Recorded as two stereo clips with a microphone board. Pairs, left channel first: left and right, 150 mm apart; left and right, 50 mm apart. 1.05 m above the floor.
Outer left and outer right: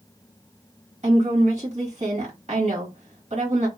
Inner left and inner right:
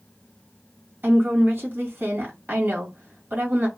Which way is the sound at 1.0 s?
50° right (ahead or behind).